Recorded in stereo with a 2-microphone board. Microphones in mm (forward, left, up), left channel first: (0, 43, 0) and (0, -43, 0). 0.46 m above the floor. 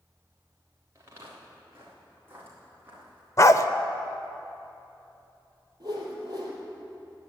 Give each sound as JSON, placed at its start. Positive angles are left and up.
{"t": 0.9, "sound": "footsteps", "side_deg": -35, "distance_m": 4.5}
{"t": 3.4, "sound": "a dog barking", "side_deg": 35, "distance_m": 0.5}
{"t": 5.8, "sound": "a whoosh", "side_deg": -50, "distance_m": 3.5}